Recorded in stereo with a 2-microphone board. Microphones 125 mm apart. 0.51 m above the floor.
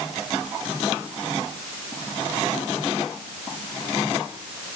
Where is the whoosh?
No whoosh in this recording.